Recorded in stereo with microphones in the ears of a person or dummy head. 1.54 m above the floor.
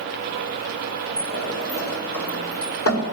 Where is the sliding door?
75° left (ahead or behind), 2.5 m.